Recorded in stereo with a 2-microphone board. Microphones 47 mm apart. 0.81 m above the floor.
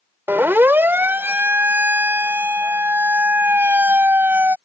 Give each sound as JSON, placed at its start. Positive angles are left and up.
{"t": 0.3, "sound": "a siren", "side_deg": -50}